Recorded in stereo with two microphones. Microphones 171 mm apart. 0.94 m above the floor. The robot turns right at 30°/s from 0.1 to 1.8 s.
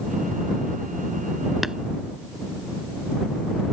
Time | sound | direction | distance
1.6 | tapping | centre (ahead or behind) | ?